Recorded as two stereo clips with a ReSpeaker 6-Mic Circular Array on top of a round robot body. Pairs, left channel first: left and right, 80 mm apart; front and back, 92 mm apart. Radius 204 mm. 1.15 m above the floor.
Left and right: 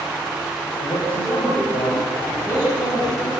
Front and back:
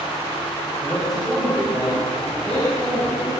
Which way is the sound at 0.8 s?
90° left.